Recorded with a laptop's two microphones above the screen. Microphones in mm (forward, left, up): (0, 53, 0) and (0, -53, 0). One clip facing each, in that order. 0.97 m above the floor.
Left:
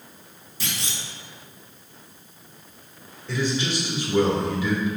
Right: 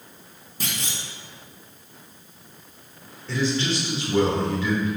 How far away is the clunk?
About 1.3 m.